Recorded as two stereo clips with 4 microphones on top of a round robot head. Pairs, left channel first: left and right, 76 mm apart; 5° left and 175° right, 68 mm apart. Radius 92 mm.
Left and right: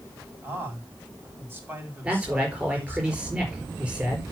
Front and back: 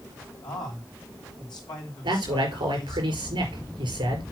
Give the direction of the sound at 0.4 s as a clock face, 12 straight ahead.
1 o'clock.